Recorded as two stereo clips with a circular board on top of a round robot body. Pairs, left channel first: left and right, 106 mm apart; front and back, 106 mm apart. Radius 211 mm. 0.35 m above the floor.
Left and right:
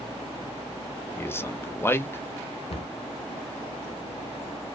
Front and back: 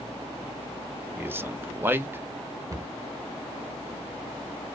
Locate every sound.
1.2 s a man speaking: 130° left, 0.9 m
2.7 s a cupboard door: 120° left, 0.5 m